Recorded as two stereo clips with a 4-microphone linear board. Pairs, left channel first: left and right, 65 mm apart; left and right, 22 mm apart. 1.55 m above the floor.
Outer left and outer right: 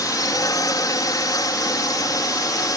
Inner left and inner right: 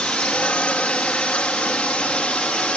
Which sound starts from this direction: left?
A drone, at 0.0 s.